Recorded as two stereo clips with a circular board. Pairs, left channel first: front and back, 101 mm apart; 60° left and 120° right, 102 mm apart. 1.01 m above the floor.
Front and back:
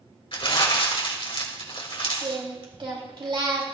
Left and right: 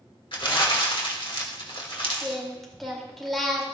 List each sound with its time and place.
0.3 s crumpling: 30° left, 2 m
2.2 s singing: 150° left, 2.5 m